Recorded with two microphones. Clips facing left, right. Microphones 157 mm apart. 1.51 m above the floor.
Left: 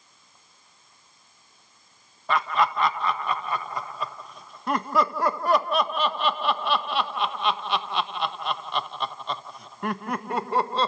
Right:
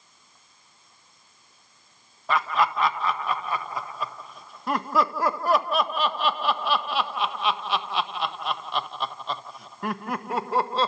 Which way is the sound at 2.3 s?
Centre (ahead or behind).